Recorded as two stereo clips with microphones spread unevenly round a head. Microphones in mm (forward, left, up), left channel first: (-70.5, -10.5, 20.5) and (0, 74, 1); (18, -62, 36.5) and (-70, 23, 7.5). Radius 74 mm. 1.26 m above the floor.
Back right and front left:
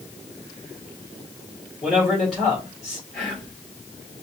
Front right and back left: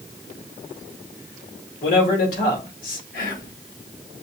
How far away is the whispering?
About 1.6 m.